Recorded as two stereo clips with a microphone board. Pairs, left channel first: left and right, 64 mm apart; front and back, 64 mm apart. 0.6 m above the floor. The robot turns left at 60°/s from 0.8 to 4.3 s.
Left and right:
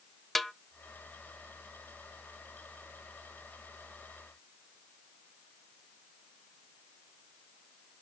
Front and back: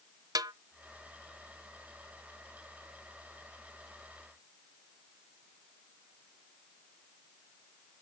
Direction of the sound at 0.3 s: Straight behind.